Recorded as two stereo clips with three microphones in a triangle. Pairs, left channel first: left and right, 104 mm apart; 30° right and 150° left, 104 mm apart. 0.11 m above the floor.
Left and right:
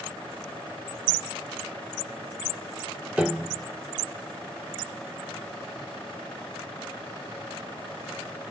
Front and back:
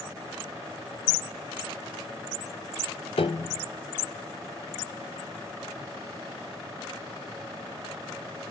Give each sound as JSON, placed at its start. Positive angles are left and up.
{"t": 3.2, "sound": "a piano", "azimuth_deg": -10, "distance_m": 0.5}